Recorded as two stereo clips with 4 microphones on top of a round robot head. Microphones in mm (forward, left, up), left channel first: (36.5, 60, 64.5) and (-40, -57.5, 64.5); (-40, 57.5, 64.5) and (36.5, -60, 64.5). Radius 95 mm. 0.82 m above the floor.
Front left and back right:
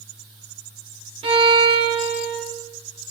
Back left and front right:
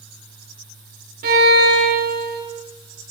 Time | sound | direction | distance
1.2 | a violin | 70° right | 1.1 m